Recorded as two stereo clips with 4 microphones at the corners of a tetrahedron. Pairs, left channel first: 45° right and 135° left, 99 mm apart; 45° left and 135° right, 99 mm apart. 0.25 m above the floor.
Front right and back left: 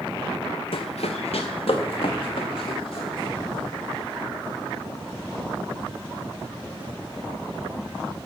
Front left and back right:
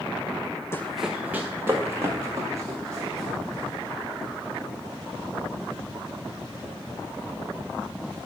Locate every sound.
0.7 s running footsteps: 20° right, 0.6 m; by 4.2 s 80° right, 6 m